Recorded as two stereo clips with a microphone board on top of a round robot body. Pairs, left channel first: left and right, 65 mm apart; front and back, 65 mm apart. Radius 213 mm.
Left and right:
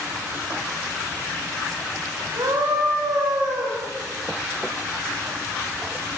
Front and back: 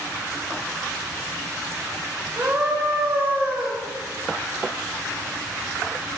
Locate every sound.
2.4 s a scream: 115° right, 4 m